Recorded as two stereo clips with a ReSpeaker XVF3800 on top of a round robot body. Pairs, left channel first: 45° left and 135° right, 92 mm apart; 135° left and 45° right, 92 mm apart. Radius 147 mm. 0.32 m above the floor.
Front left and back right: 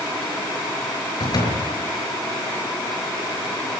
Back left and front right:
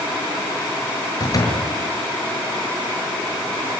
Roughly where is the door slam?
Left.